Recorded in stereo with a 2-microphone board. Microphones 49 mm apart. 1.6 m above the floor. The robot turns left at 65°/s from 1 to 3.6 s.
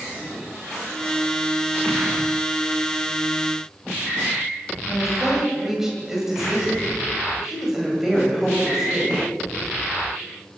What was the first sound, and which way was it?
A woman speaking, 10° right (ahead or behind).